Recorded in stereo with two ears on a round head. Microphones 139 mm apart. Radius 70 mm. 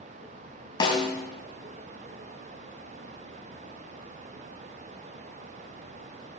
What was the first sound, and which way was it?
A snare drum, 25° left (ahead or behind).